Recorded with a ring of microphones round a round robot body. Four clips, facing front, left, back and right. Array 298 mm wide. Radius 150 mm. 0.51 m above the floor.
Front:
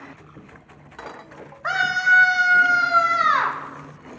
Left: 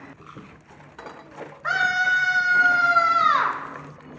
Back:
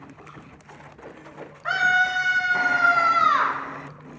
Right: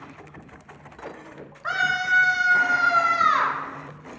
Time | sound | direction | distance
1.6 | a scream | 5° left | 2.5 m